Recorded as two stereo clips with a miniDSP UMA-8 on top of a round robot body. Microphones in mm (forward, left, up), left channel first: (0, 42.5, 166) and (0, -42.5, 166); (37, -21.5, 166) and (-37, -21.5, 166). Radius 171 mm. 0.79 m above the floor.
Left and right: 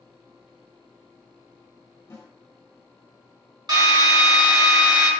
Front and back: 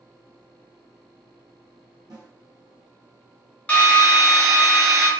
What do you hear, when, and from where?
2.1 s a snare drum: 150° left, 2 m
3.7 s a drill: 70° right, 1.7 m